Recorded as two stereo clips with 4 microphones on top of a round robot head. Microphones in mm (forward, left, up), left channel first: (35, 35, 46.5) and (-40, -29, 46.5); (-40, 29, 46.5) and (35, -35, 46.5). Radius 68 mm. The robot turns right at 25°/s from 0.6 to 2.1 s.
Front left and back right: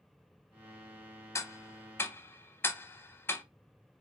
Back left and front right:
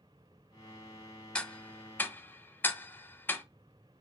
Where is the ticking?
70° left, 0.6 m; by 3.4 s 85° left, 0.6 m.